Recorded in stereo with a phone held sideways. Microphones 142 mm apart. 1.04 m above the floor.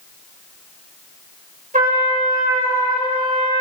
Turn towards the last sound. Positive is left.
turn(degrees=-70)  # may be behind; listen again after turning